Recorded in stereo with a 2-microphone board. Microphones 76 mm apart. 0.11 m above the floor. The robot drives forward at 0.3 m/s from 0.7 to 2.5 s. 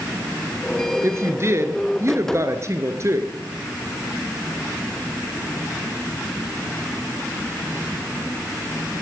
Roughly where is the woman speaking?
Right.